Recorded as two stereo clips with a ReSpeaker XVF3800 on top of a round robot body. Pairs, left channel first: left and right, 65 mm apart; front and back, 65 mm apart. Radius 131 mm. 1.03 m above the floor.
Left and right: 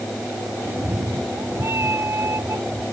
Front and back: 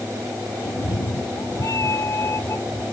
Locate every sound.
0.7 s a cat meowing: 35° right; by 2.8 s 50° right